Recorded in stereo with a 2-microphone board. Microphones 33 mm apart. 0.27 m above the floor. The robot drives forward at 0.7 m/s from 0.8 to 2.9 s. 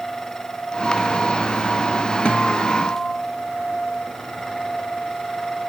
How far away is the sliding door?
No sliding door in this recording.